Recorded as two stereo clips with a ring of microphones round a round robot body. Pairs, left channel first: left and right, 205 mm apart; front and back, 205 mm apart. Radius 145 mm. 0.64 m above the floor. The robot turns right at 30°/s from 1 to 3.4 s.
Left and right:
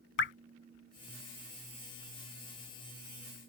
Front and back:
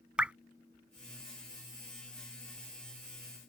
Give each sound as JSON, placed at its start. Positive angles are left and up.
{"t": 0.2, "sound": "dripping", "azimuth_deg": 95}